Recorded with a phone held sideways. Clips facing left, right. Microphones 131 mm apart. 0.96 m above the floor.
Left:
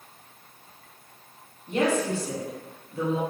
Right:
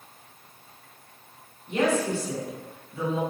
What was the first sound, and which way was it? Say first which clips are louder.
A woman speaking: even; 40° left (ahead or behind).